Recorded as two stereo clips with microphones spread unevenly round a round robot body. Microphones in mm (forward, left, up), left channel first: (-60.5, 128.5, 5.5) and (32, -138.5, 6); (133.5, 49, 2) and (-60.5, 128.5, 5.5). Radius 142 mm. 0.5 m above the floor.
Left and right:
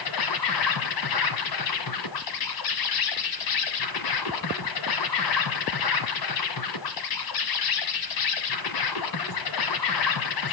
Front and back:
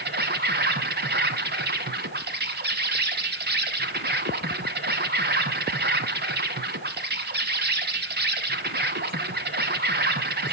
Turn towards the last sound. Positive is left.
turn(degrees=120)